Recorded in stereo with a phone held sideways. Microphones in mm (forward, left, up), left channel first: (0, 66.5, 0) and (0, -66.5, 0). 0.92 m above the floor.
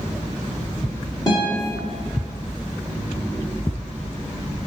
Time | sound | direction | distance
1.3 | a guitar | 30° left (ahead or behind) | 0.9 m